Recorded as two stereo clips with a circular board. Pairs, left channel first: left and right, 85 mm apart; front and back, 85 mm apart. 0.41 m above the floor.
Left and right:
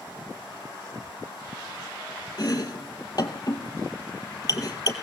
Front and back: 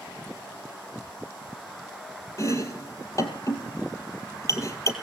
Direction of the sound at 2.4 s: 50° left.